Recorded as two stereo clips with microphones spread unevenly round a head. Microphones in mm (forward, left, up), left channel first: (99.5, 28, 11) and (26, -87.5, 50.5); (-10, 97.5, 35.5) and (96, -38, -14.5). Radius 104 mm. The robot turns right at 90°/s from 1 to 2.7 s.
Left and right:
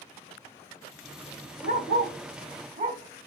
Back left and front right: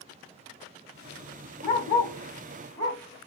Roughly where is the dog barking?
Left.